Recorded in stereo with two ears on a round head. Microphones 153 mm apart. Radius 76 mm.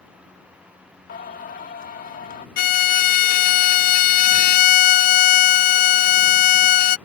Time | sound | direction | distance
1.1 | singing | 55° left (ahead or behind) | ?
2.6 | a violin | 55° left (ahead or behind) | ?